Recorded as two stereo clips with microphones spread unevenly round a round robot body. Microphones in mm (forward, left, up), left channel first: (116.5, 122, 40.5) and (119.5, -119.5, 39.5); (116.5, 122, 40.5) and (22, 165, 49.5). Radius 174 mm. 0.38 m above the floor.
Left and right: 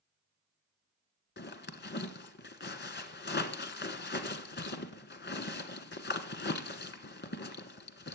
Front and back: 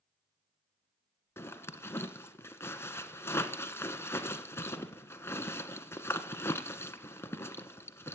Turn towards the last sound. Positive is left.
turn(degrees=45)